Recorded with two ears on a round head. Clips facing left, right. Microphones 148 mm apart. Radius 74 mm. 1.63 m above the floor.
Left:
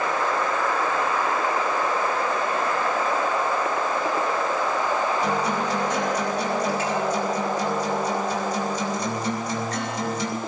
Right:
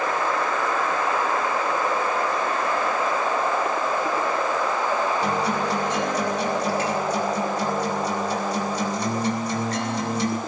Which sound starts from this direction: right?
A guitar, at 5.2 s.